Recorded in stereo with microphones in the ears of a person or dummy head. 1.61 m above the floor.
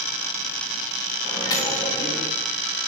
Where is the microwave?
20° left (ahead or behind), 1.3 m.